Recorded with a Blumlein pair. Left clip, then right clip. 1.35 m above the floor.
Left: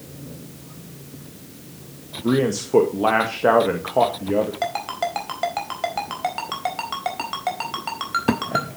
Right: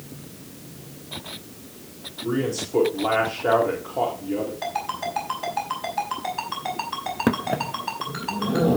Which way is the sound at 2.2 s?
55° left.